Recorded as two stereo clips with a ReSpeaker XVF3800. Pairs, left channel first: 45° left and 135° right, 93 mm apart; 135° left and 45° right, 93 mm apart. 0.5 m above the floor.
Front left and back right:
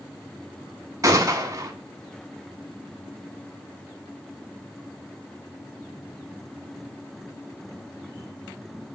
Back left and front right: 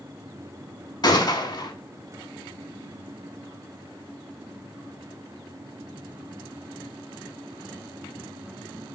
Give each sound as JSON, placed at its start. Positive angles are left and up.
{"t": 1.0, "sound": "a gunshot", "azimuth_deg": 175, "distance_m": 0.7}